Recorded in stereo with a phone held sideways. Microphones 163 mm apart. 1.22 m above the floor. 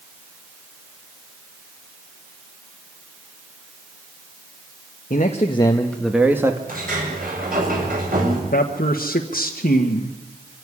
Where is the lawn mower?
I don't hear a lawn mower.